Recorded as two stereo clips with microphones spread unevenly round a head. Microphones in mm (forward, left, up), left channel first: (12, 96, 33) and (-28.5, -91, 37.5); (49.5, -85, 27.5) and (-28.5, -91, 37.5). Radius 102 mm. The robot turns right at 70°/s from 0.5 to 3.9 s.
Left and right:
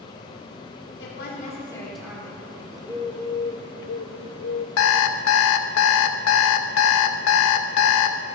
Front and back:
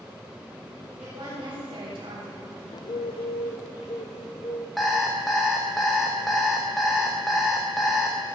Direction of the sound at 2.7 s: 35° right.